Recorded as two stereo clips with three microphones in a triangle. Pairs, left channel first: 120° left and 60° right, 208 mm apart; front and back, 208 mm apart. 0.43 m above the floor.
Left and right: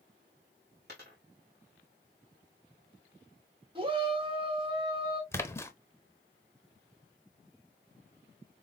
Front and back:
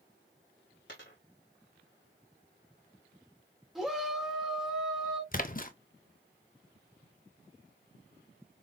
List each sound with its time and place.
0.9 s a dropped coin: 25° right, 3 m
3.8 s a shout: 90° right, 1.4 m
5.3 s a splash: 45° left, 0.6 m